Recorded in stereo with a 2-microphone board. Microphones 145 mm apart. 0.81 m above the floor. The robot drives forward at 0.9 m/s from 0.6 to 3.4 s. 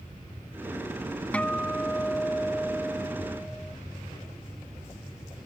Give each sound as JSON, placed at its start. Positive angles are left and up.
{"t": 1.3, "sound": "a guitar", "side_deg": 10}